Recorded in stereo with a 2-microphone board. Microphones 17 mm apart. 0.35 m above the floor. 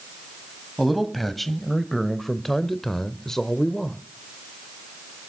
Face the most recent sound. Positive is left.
turn(degrees=25)  # may be behind; listen again after turning